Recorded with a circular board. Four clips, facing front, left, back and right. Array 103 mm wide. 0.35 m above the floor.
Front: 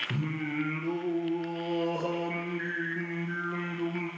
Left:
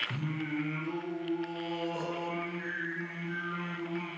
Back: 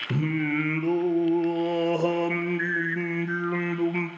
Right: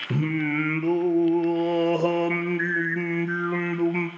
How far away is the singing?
About 1.0 m.